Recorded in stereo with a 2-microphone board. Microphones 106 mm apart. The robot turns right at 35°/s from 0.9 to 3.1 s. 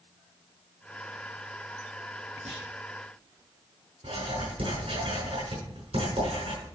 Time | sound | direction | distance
2.5 | a clunk | 80° right | 5.5 m
4.0 | writing | 70° right (ahead or behind) | 5.5 m